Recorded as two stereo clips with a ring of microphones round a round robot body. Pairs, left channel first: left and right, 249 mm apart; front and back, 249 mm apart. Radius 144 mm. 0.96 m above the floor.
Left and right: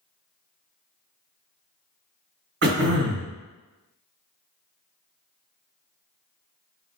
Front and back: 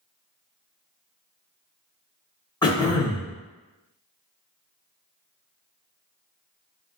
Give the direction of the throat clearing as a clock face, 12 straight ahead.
2 o'clock.